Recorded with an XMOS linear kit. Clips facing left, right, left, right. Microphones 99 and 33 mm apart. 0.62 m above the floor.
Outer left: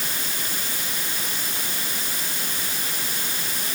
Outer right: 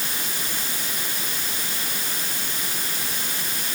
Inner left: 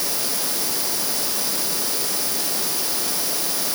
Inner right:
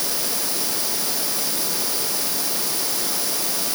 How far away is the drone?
No drone in this recording.